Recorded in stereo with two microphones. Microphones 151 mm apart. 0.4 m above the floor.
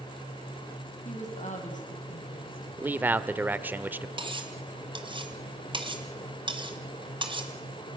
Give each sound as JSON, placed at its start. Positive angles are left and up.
{"t": 1.1, "sound": "a woman speaking", "side_deg": 50, "distance_m": 4.0}
{"t": 2.8, "sound": "a man speaking", "side_deg": -10, "distance_m": 0.9}
{"t": 4.2, "sound": "cutlery clinking", "side_deg": -35, "distance_m": 1.9}